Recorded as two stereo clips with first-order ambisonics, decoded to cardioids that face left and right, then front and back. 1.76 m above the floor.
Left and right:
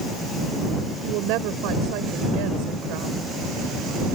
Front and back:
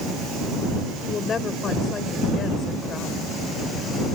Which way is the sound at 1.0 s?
70° right.